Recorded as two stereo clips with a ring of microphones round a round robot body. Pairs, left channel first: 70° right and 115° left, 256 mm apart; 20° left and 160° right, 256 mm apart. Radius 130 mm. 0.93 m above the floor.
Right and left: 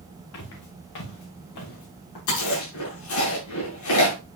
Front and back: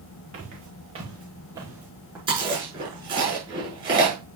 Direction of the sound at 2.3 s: 85° right.